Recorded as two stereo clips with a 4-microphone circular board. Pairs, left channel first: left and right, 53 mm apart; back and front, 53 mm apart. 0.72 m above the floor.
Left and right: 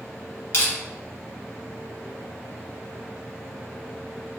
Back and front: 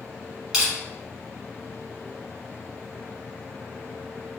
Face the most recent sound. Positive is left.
turn(degrees=75)